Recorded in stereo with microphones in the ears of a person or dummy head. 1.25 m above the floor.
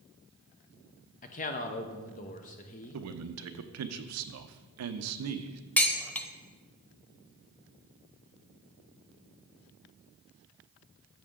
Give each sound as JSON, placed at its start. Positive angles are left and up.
{"t": 1.2, "sound": "a man speaking", "side_deg": 35, "distance_m": 0.8}
{"t": 2.9, "sound": "a man speaking", "side_deg": -75, "distance_m": 0.6}
{"t": 5.8, "sound": "dishes clattering", "side_deg": 10, "distance_m": 0.8}